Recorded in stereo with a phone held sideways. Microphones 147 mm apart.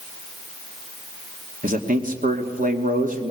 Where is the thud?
No thud in this recording.